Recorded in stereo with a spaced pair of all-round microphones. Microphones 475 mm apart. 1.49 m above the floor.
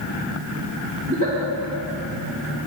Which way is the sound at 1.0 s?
20° right (ahead or behind).